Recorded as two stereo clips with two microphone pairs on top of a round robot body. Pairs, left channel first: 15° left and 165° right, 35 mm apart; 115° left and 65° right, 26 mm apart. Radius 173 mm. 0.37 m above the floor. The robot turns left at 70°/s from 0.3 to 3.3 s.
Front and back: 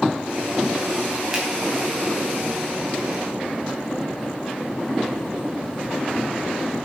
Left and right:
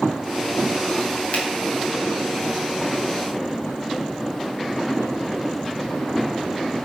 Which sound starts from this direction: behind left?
A finger snap, at 1.3 s.